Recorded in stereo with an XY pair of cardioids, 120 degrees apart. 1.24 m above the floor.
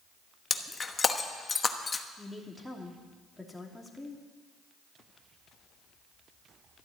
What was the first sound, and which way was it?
Breaking glass, 25° left.